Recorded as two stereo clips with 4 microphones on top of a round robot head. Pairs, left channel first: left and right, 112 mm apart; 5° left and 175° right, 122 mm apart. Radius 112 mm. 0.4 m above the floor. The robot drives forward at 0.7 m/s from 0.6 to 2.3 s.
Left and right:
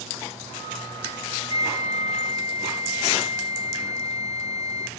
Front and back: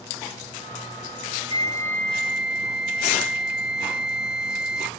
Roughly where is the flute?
Ahead left.